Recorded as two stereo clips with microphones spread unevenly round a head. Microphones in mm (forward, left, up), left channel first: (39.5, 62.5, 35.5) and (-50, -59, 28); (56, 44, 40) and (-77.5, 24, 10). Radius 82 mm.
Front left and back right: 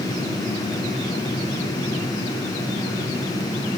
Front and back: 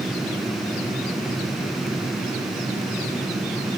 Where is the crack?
I don't hear a crack.